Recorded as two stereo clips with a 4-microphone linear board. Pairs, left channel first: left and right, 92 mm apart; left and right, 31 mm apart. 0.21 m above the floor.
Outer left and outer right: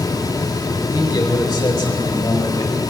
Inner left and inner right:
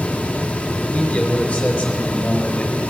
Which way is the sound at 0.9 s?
35° left (ahead or behind).